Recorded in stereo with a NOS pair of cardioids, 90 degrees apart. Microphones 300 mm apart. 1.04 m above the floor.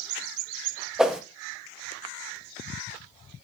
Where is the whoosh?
Straight ahead, 1.1 m.